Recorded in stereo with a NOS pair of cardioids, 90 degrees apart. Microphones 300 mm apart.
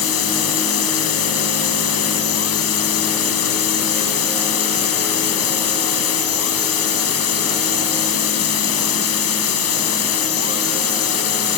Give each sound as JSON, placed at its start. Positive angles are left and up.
{"t": 0.0, "sound": "a machine running", "azimuth_deg": 55}